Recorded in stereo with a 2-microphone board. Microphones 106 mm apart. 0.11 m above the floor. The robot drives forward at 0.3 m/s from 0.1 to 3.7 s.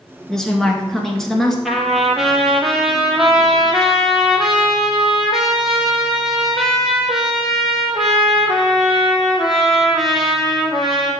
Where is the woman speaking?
5° left (ahead or behind), 1.3 m.